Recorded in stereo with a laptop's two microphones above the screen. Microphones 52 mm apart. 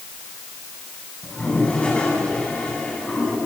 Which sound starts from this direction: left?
A toilet flushing, at 1.2 s.